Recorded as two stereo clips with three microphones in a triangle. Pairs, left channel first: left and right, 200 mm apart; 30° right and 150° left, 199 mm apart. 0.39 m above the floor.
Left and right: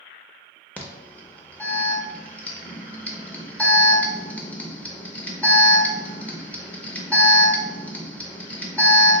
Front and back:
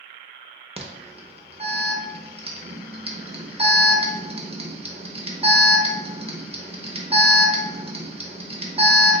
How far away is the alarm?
About 0.5 m.